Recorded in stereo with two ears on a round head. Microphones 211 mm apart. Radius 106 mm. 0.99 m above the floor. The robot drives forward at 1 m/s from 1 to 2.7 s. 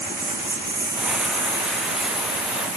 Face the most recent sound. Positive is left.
turn(degrees=-15)  # may be behind; listen again after turning